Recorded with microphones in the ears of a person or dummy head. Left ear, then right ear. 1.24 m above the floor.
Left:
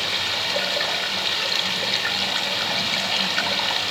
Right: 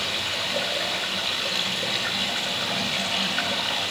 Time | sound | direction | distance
0.0 | running water | 35° left (ahead or behind) | 3 m